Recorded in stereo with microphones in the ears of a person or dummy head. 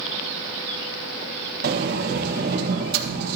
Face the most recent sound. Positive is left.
turn(degrees=-55)  # may be behind; listen again after turning